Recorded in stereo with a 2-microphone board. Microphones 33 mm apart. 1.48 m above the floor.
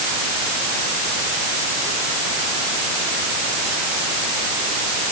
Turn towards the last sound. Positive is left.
No sound to turn to.